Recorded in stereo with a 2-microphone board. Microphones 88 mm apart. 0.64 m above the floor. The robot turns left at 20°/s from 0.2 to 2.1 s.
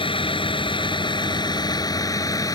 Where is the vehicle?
85° left; by 2.5 s 45° left.